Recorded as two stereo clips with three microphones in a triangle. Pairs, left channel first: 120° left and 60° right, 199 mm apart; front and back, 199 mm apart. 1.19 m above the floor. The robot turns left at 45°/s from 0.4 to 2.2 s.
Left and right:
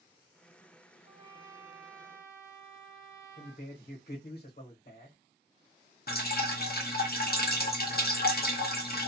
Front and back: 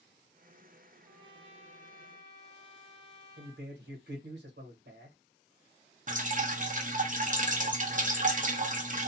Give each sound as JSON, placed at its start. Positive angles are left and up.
{"t": 1.0, "sound": "a trumpet", "azimuth_deg": -110, "distance_m": 0.8}
{"t": 3.4, "sound": "a man speaking", "azimuth_deg": 155, "distance_m": 1.3}
{"t": 6.1, "sound": "dripping", "azimuth_deg": 140, "distance_m": 0.6}